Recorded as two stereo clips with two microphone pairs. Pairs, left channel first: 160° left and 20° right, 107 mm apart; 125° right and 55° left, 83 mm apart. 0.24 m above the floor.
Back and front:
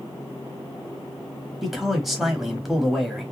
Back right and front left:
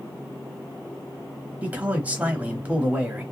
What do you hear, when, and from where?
1.6 s a man speaking: 75° left, 1.0 m